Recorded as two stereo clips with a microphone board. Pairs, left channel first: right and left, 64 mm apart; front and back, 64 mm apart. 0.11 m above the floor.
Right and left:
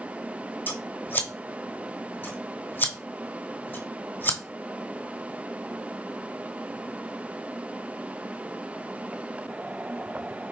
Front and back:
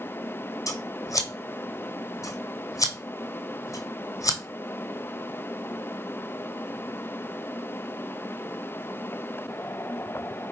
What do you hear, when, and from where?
0.7 s scissors: 30° right, 0.9 m